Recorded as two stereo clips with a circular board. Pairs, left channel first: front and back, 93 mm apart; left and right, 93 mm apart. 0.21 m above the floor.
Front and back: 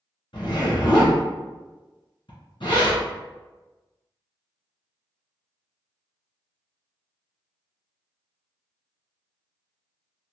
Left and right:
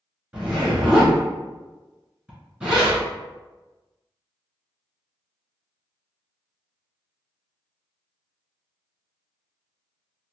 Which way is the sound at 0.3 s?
15° right.